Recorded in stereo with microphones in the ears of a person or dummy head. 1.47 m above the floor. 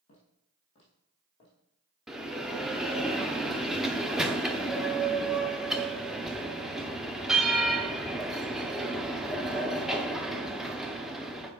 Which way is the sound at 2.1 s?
5° right (ahead or behind).